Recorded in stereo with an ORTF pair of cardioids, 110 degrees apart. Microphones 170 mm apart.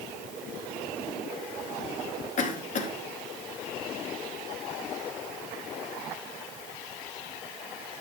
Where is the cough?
45° left, 3 m.